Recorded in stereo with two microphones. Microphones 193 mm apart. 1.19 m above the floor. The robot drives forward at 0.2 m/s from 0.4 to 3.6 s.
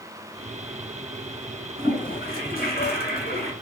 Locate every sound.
1.8 s a toilet flushing: 45° left (ahead or behind), 1.5 m; by 3.5 s 55° left (ahead or behind), 1.4 m